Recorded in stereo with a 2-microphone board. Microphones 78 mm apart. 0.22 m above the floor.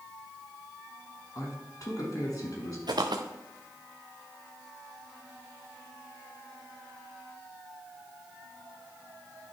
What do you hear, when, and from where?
1.4 s a man speaking: 50° left (ahead or behind), 2 m
2.9 s footsteps: 65° right (ahead or behind), 1.1 m